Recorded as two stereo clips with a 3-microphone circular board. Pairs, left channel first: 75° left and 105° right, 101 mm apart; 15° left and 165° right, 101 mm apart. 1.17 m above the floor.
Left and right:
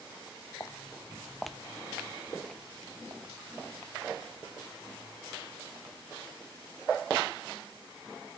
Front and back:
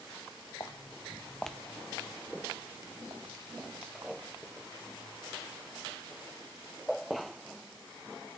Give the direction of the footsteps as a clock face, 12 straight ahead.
11 o'clock.